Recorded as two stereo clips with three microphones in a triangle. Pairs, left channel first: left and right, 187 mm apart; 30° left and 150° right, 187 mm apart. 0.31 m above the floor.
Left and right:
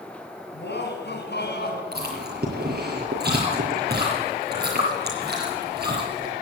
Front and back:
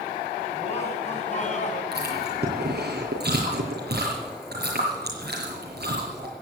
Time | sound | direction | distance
0.5 | laughter | 80° left | 3.5 m
1.9 | chewing | 120° right | 6 m